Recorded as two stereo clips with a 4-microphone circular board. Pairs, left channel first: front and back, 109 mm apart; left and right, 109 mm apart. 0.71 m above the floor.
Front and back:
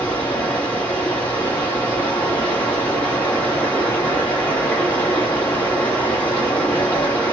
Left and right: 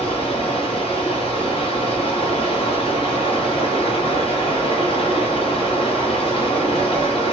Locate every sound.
0.0 s running water: 75° left, 1.0 m